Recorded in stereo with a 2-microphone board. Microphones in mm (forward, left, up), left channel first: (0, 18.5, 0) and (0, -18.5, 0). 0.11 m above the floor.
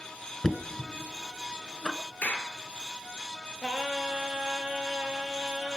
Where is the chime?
I don't hear a chime.